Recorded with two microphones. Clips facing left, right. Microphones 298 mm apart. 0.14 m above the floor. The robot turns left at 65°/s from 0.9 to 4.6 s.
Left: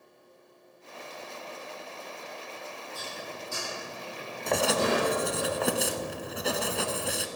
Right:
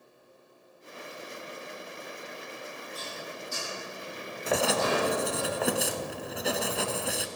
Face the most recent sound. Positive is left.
turn(degrees=0)  # may be behind; listen again after turning